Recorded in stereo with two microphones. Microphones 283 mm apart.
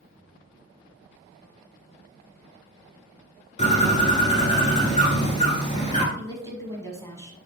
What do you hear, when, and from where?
3.6 s a bird: 25° left (ahead or behind), 1.3 m
6.2 s a woman speaking: 10° left (ahead or behind), 1.0 m